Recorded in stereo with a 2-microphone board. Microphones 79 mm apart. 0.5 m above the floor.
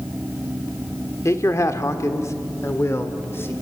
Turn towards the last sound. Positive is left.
turn(degrees=30)  # may be behind; listen again after turning